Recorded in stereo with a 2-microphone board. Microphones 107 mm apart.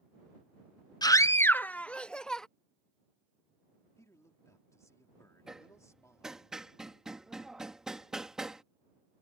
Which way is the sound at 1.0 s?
40° left (ahead or behind).